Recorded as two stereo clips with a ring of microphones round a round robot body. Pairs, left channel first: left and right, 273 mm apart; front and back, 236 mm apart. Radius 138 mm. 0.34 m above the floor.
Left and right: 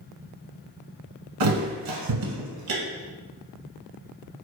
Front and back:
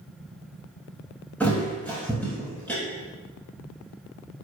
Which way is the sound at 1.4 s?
85° right.